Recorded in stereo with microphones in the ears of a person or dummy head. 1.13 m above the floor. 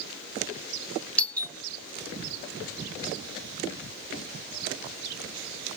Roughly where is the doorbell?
Centre.